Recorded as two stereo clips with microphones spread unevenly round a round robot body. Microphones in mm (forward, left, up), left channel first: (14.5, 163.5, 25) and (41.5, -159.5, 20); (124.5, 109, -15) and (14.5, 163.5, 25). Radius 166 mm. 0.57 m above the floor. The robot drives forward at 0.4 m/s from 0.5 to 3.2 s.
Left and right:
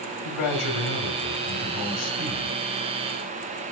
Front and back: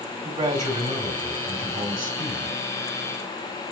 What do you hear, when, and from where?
0.2 s a man speaking: 125° left, 3 m; by 2.6 s 135° left, 3.5 m